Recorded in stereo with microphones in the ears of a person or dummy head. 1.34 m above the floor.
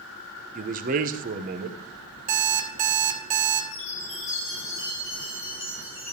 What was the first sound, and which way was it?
A man speaking, 45° right (ahead or behind).